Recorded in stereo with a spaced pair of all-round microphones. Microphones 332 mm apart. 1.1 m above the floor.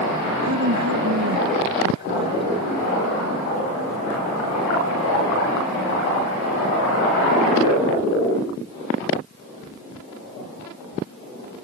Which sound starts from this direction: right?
A woman speaking, at 0.4 s.